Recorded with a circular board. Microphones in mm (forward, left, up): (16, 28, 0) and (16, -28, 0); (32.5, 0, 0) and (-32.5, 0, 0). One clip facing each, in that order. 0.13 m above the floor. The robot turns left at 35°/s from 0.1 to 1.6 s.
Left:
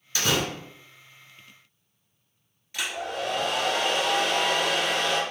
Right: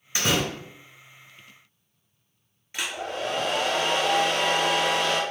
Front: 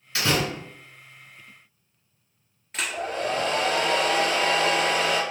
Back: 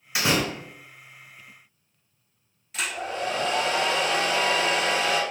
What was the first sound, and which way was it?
A door slam, 125° right.